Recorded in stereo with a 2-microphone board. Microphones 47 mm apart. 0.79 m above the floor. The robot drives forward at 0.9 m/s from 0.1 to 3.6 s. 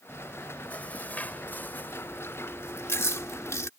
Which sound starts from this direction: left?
Chewing, at 0.1 s.